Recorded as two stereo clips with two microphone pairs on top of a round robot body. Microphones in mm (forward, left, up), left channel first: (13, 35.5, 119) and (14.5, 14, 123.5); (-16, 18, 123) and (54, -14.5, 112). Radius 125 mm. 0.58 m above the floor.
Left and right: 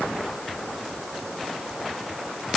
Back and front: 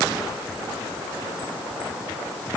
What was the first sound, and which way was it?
Only background noise.